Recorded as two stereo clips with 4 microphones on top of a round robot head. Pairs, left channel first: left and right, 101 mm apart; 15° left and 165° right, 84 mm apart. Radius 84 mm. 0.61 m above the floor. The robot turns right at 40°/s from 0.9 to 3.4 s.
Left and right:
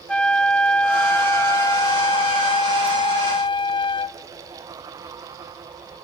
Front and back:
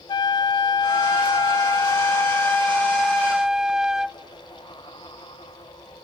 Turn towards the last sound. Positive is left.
turn(degrees=110)